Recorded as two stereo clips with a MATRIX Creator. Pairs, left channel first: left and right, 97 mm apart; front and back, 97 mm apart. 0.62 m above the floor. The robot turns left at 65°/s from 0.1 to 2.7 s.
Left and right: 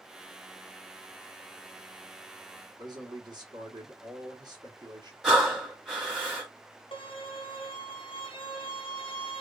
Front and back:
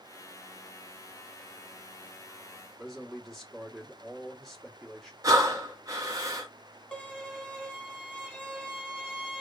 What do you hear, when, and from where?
2.8 s a man speaking: 90° right, 1.3 m
5.2 s breathing: 175° right, 1.2 m
6.9 s a violin: 75° left, 1.0 m